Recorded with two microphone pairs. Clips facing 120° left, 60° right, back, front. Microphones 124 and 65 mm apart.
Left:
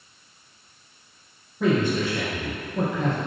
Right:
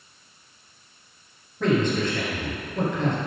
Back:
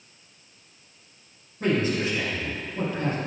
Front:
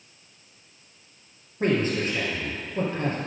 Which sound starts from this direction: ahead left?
A man speaking, at 1.6 s.